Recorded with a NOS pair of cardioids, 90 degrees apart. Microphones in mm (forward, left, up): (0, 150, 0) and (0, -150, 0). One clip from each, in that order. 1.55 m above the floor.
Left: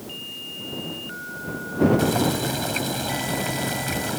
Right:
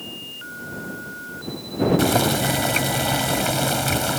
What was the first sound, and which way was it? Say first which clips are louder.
Boiling: right 3 dB; 45° right.